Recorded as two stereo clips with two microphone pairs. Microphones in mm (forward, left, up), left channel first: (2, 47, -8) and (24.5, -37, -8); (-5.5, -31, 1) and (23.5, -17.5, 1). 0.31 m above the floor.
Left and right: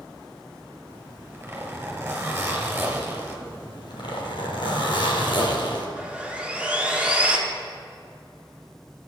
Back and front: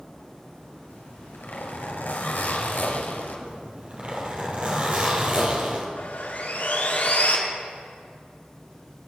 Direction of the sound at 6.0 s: 150° right.